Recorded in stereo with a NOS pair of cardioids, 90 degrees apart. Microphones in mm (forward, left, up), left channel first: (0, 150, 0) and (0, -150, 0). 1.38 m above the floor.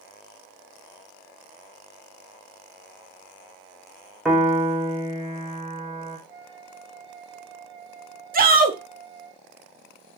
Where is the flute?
15° right, 0.9 m.